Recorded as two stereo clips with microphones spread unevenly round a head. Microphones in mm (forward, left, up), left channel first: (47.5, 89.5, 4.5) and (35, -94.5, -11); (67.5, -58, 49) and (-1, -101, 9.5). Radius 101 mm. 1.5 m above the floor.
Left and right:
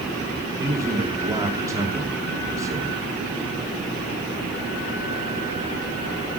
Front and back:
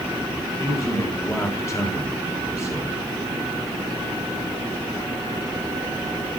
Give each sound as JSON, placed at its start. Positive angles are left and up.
{"t": 0.6, "sound": "a man speaking", "azimuth_deg": -20, "distance_m": 3.0}